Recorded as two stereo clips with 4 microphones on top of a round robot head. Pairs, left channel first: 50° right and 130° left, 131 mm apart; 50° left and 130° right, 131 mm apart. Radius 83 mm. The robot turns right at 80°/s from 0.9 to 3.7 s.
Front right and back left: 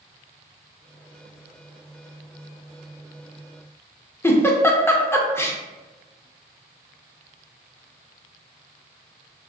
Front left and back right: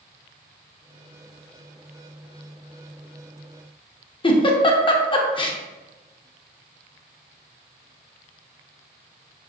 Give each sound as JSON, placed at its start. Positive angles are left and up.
{"t": 4.2, "sound": "a giggle", "azimuth_deg": 15, "distance_m": 0.6}